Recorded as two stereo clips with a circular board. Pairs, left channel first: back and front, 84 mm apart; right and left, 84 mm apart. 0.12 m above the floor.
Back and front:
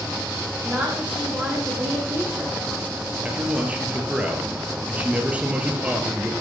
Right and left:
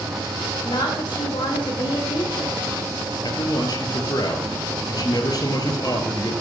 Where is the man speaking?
70° right, 2.5 m.